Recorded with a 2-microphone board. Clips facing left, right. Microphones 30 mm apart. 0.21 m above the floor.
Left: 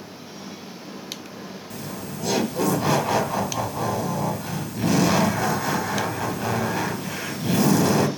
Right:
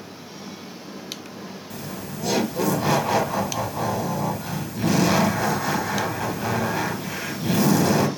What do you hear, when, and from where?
1.7 s laughter: centre (ahead or behind), 1.0 m